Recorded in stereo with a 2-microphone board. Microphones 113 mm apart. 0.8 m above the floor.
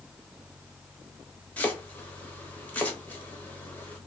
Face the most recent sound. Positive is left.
turn(degrees=15)  # may be behind; listen again after turning